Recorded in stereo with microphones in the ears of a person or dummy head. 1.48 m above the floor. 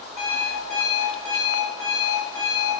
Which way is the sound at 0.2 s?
5° left (ahead or behind).